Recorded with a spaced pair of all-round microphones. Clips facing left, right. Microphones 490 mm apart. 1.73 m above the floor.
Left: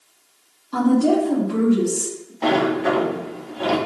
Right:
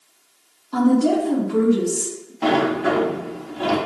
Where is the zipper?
I don't hear a zipper.